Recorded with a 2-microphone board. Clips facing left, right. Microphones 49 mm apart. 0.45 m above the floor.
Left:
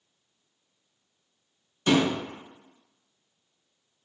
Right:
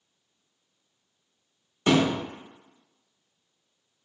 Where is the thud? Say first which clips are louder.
Right 1 dB; 35° right (ahead or behind), 0.8 m.